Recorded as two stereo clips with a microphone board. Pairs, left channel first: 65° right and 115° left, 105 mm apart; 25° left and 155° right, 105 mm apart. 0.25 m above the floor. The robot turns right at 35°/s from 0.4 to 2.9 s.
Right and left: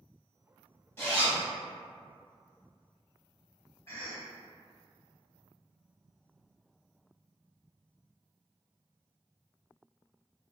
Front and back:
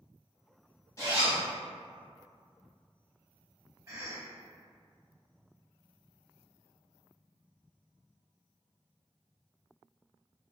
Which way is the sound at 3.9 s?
115° right.